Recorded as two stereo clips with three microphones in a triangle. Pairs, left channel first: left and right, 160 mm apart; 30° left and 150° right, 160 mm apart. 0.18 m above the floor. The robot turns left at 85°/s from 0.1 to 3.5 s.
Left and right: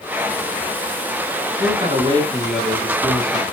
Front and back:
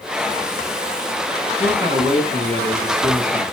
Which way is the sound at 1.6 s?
90° right.